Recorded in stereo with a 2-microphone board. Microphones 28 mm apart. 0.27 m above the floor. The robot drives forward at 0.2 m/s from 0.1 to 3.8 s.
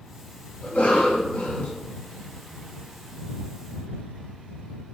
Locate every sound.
0.6 s a cough: 60° left (ahead or behind), 2 m; by 1.7 s 55° left (ahead or behind), 2 m